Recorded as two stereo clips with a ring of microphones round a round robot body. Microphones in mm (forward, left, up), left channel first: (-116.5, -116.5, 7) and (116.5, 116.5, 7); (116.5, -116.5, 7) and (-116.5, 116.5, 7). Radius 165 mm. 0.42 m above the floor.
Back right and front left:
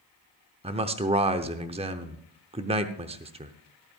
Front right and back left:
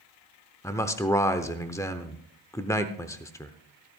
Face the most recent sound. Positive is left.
turn(degrees=15)